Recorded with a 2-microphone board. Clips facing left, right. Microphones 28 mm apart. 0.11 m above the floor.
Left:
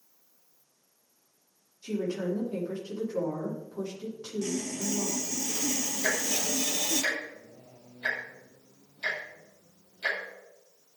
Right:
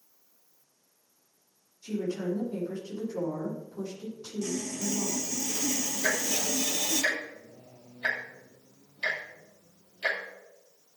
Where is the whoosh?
No whoosh in this recording.